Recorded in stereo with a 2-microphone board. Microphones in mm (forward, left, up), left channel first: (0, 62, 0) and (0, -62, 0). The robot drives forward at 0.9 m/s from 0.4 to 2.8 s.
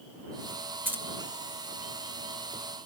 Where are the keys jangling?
15° right (ahead or behind), 0.7 m.